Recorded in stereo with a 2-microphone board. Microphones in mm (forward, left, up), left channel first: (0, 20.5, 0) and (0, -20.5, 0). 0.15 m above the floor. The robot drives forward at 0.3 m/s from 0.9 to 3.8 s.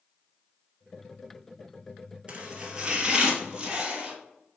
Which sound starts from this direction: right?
Chopping, at 2.3 s.